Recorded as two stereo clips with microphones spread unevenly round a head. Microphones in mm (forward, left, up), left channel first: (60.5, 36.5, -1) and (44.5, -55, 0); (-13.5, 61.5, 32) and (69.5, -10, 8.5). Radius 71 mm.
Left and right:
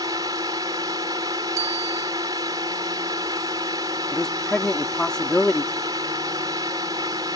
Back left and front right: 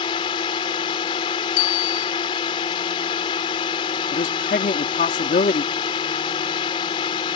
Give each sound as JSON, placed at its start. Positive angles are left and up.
{"t": 0.0, "sound": "a drone", "azimuth_deg": -165}
{"t": 1.6, "sound": "a bicycle bell", "azimuth_deg": -165}
{"t": 4.1, "sound": "a man speaking", "azimuth_deg": 165}